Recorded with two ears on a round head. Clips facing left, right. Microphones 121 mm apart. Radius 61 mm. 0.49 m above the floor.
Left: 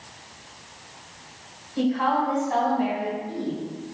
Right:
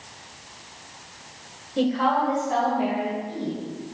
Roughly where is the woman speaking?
Right.